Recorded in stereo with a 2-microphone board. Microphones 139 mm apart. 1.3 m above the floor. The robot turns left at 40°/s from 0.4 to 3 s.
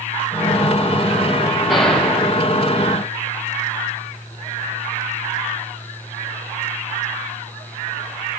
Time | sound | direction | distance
1.7 | a gunshot | centre (ahead or behind) | 5.5 m